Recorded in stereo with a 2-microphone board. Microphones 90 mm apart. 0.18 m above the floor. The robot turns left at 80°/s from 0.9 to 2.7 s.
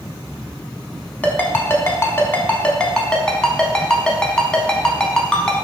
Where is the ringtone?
20° left (ahead or behind), 0.7 m; by 5.7 s 10° left (ahead or behind), 0.7 m.